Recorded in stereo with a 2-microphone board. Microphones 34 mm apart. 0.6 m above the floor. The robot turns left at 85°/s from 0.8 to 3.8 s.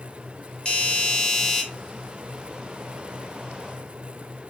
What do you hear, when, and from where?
0.7 s a doorbell: 25° left (ahead or behind), 1.9 m; by 1.6 s centre (ahead or behind), 1.9 m